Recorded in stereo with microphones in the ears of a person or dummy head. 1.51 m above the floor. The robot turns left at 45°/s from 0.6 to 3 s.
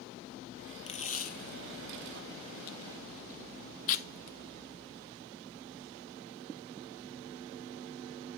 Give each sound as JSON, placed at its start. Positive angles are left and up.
{"t": 0.9, "sound": "tape being pulled", "side_deg": 35, "distance_m": 0.6}